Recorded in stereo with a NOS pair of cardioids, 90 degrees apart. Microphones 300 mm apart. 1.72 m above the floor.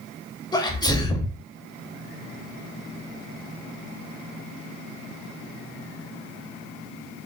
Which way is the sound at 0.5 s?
15° left.